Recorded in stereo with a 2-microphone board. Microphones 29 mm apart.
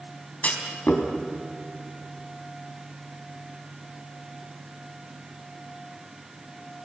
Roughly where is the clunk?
Left.